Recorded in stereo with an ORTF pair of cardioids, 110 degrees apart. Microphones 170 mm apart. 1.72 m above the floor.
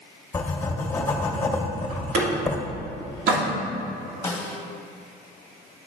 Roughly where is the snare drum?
Ahead.